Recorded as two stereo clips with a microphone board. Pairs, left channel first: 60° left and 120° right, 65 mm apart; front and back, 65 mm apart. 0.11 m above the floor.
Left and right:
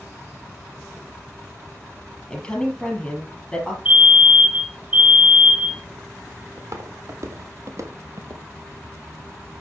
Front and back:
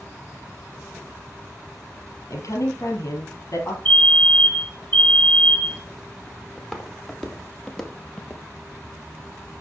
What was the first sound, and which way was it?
A woman speaking, 15° right.